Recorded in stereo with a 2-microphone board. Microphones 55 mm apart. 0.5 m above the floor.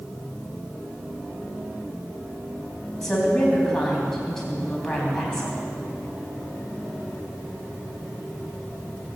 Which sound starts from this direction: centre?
A woman speaking, at 3.0 s.